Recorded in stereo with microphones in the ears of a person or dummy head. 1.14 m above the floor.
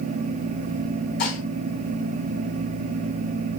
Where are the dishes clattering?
55° left (ahead or behind), 4 m.